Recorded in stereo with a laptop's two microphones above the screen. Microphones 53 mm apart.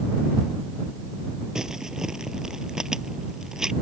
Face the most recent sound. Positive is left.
turn(degrees=-10)  # may be behind; listen again after turning